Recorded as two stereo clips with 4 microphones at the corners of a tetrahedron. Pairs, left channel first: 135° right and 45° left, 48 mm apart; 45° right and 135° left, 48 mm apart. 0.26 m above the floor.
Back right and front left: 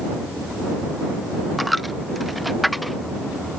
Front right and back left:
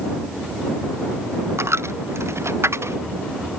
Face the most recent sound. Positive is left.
turn(degrees=135)